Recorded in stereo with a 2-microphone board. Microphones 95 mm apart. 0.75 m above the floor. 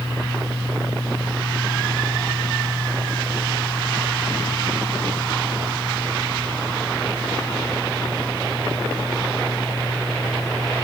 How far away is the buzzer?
I don't hear a buzzer.